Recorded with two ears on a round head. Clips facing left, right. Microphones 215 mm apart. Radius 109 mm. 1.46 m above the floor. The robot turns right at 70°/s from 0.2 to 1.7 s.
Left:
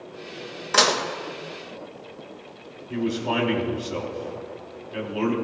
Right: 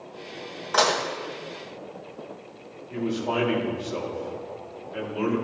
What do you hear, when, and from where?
0.7 s dishes clattering: 35° left (ahead or behind), 1.1 m; by 1.0 s 15° left (ahead or behind), 1.1 m
2.9 s a man speaking: 40° left (ahead or behind), 4 m